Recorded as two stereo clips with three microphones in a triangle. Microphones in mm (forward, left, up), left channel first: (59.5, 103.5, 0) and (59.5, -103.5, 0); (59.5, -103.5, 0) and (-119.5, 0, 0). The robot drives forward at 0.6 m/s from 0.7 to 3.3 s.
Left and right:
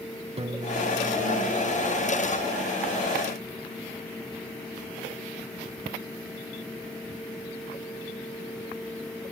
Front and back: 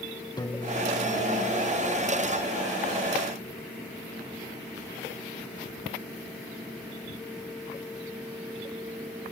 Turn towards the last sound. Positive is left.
turn(degrees=-170)